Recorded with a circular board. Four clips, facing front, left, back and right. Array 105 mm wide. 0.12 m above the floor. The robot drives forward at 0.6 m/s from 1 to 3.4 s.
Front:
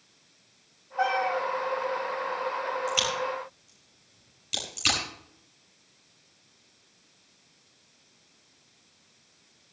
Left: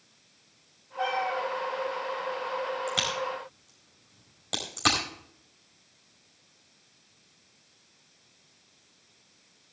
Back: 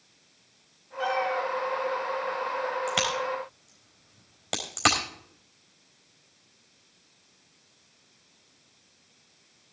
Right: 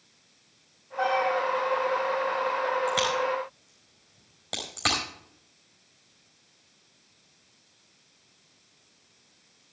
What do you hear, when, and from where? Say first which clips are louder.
1.0 s a cat meowing: right 4 dB, front 1 dB; 20° right, 4 m; by 1.4 s 25° right, 3.5 m
2.9 s a crack: right 6 dB, back 1 dB; 175° right, 4.5 m